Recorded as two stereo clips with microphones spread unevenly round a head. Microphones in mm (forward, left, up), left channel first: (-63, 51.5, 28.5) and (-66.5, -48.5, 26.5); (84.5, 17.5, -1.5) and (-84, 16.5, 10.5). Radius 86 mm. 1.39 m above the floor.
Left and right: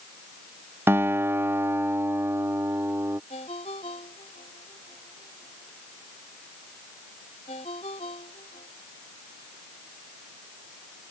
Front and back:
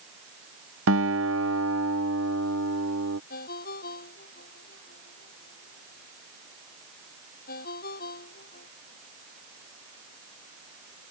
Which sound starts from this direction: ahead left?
A ringtone, at 3.3 s.